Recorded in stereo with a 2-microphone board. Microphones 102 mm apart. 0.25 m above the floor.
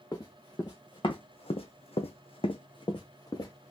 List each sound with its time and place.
0.1 s running footsteps: 35° left (ahead or behind), 1.2 m; by 3.7 s 30° left (ahead or behind), 1.1 m